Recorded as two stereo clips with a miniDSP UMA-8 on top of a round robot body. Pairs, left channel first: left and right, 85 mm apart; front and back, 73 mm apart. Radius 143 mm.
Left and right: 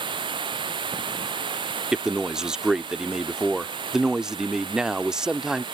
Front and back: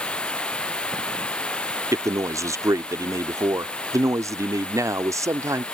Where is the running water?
75° right.